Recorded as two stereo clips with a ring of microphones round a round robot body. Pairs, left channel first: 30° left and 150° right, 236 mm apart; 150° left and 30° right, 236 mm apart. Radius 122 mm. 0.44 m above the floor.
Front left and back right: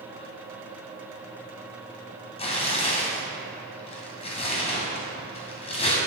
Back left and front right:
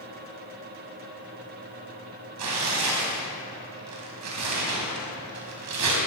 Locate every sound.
2.4 s tearing paper: 35° right, 2 m